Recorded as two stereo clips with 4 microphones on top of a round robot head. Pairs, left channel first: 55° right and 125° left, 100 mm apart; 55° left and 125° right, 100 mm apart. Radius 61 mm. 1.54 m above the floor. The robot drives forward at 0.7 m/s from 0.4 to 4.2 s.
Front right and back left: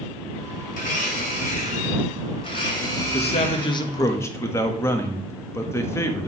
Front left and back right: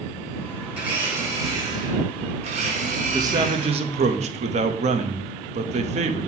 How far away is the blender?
About 1.7 m.